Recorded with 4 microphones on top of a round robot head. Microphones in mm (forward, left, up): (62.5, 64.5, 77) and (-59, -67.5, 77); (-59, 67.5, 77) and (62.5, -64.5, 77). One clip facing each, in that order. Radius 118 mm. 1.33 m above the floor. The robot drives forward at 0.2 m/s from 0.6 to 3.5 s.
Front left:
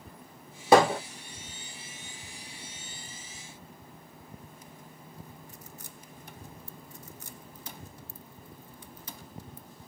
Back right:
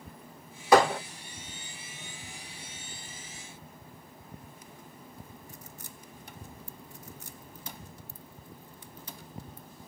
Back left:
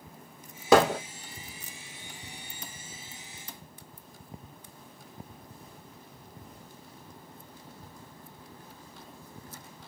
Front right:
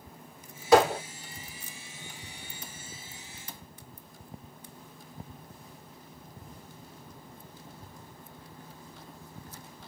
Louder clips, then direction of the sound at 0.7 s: Front left 1 dB, even; 110° left.